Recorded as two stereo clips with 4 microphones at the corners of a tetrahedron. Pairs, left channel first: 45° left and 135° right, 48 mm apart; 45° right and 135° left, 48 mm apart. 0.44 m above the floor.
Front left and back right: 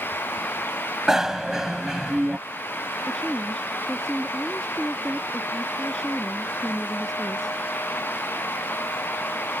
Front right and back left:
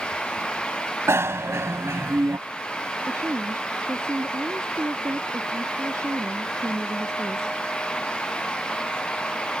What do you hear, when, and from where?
1.1 s a bicycle bell: 145° left
3.1 s a woman speaking: 125° left